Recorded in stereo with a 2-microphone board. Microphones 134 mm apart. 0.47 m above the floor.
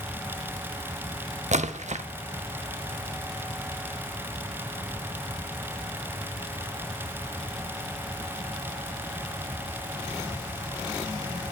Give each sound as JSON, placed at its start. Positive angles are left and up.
{"t": 1.5, "sound": "a splash", "side_deg": -60, "distance_m": 0.5}